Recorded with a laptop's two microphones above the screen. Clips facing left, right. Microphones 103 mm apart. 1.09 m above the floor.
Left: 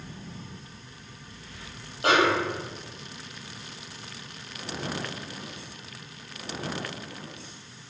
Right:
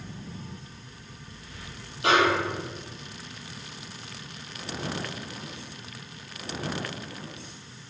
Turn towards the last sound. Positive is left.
turn(degrees=45)  # may be behind; listen again after turning